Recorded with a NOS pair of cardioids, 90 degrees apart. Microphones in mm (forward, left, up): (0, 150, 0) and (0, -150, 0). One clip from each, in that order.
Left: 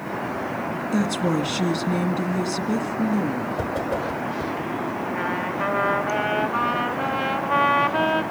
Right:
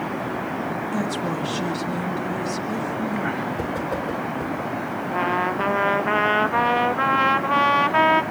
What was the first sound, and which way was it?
A woman speaking, 25° left.